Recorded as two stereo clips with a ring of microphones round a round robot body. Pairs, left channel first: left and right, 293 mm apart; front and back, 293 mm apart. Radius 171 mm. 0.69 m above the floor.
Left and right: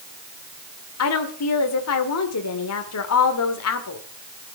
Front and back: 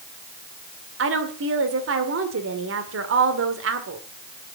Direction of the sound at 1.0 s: 130° left.